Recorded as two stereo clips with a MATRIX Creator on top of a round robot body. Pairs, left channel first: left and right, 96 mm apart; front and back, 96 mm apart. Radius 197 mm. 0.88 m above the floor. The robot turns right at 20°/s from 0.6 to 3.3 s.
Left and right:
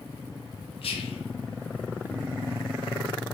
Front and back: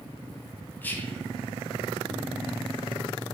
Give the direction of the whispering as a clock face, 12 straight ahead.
10 o'clock.